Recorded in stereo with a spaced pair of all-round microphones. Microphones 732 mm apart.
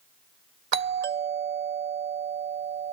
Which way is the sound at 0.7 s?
60° right (ahead or behind).